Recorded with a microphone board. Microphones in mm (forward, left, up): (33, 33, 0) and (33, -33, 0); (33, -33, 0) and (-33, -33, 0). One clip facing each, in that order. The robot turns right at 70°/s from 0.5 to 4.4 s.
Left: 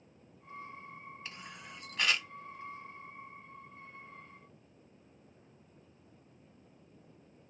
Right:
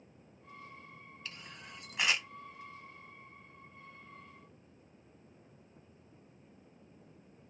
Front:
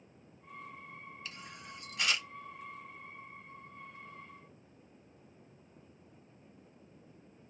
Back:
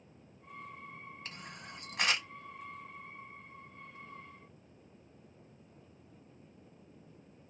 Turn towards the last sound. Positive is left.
turn(degrees=10)